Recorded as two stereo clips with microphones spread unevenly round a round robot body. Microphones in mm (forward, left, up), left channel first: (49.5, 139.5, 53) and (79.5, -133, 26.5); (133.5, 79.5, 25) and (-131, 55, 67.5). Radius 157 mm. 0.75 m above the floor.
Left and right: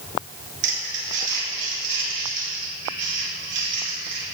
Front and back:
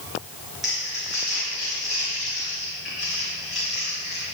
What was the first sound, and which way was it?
Crumpling, 85° right.